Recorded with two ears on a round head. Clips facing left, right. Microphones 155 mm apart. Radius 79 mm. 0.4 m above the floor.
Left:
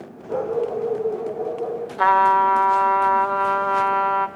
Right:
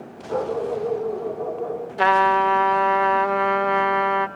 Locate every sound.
0.3 s a dog barking: 25° left (ahead or behind), 7.5 m
2.0 s a trumpet: 25° right (ahead or behind), 0.8 m